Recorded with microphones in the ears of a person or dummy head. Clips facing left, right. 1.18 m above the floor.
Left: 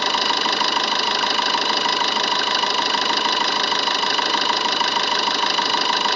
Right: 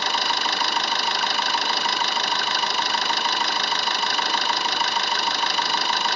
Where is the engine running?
55° left (ahead or behind), 0.8 m.